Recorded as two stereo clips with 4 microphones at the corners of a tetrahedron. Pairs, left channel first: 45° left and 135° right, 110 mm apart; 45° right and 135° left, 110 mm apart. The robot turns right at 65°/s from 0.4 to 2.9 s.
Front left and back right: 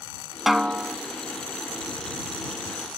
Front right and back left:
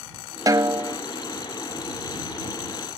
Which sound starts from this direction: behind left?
A snare drum, at 0.5 s.